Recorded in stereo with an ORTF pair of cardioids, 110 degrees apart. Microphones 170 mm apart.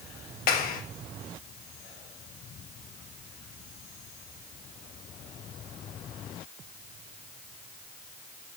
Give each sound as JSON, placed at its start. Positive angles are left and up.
{"t": 0.5, "sound": "a clap", "azimuth_deg": 60, "distance_m": 5.0}